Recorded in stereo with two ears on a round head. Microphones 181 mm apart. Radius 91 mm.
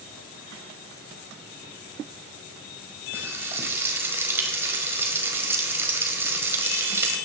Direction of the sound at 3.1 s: 10° right (ahead or behind).